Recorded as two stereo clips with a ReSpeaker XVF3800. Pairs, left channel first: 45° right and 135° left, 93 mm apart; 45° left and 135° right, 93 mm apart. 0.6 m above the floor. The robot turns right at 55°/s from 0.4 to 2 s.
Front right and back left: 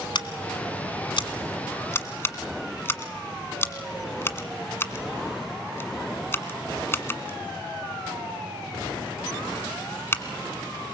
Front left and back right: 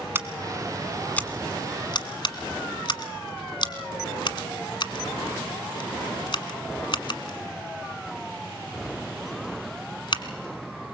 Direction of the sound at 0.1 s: 70° right.